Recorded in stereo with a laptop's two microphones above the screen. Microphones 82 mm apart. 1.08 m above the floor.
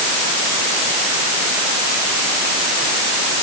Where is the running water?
I don't hear running water.